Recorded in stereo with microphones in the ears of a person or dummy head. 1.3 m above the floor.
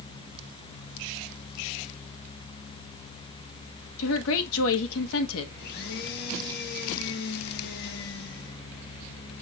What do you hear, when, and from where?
4.0 s a woman speaking: 75° left (ahead or behind), 1.4 m
5.6 s a blender: 55° left (ahead or behind), 2.0 m